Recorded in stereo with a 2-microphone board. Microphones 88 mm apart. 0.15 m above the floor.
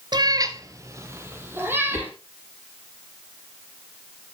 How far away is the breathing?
No breathing in this recording.